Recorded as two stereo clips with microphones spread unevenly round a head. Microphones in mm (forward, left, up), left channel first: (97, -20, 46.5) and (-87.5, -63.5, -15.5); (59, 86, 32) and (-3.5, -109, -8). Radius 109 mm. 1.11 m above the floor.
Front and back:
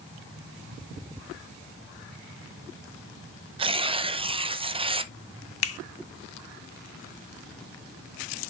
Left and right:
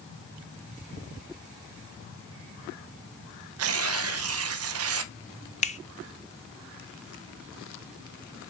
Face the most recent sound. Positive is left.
turn(degrees=10)